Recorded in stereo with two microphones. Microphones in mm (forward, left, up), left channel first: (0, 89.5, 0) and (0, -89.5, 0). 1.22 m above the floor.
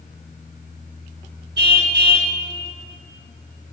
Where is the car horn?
70° right (ahead or behind), 3 m.